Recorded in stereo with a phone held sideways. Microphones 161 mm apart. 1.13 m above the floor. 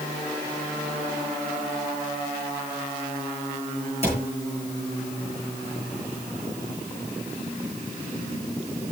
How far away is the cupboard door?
About 8.5 m.